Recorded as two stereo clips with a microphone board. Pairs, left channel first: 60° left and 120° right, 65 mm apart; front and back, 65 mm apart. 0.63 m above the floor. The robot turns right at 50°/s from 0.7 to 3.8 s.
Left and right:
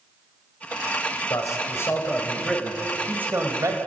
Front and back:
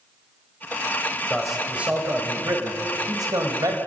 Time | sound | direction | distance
1.3 | a man speaking | 85° left | 3 m